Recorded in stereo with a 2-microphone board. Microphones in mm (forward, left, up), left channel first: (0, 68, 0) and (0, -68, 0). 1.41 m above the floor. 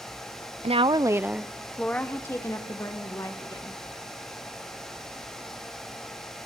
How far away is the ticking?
No ticking in this recording.